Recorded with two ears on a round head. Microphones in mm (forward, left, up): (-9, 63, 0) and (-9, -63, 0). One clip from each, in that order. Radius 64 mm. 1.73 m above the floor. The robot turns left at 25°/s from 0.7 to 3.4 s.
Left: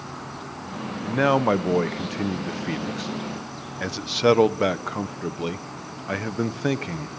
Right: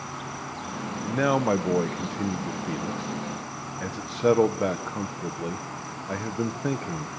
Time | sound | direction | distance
0.0 | an insect | 75° right | 4 m
1.0 | a man speaking | 165° left | 1.3 m